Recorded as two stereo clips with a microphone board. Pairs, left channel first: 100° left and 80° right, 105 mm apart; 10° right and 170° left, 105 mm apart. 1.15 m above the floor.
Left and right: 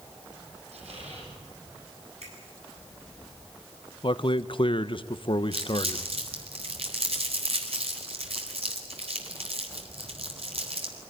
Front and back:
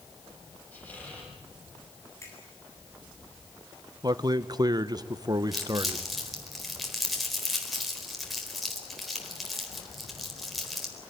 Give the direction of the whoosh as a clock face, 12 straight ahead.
No whoosh in this recording.